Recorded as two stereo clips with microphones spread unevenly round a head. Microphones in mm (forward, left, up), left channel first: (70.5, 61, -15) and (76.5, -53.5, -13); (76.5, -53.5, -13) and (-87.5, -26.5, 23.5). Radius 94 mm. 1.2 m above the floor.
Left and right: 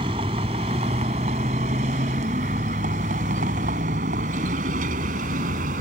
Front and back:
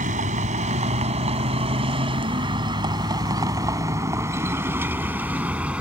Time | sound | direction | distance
0.0 | a vehicle | 150° right | ?